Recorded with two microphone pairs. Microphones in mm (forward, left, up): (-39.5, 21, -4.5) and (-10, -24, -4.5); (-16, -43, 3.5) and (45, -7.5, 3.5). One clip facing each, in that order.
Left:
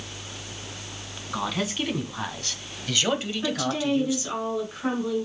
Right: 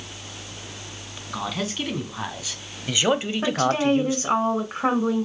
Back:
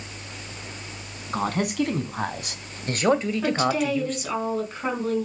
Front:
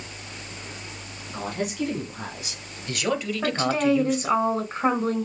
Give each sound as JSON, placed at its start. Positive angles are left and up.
{"t": 1.3, "sound": "a man speaking", "azimuth_deg": -150, "distance_m": 2.5}
{"t": 3.4, "sound": "a woman speaking", "azimuth_deg": -25, "distance_m": 3.0}